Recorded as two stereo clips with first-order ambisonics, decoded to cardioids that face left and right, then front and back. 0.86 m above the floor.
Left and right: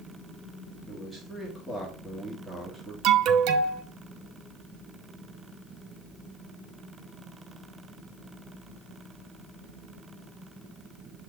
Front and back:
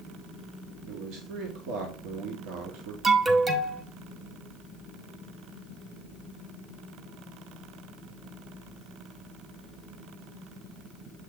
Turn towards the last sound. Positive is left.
turn(degrees=-110)